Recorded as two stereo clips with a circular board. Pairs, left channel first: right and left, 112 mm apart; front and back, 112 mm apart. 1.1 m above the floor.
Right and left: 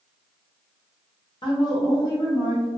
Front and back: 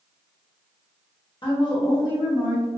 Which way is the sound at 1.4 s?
45° right.